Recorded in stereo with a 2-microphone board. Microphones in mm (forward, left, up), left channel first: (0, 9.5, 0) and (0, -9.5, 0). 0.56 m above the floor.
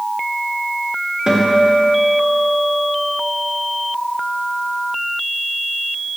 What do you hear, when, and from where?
1.3 s a guitar: 50° right (ahead or behind), 1.6 m